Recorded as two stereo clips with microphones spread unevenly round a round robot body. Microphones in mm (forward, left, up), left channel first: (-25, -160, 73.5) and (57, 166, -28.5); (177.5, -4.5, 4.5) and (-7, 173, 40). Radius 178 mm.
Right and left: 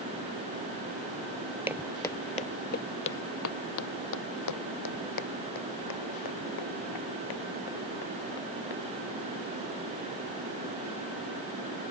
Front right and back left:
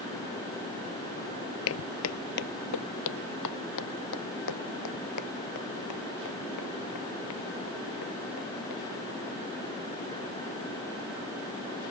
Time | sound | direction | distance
1.7 | footsteps | 20° right | ?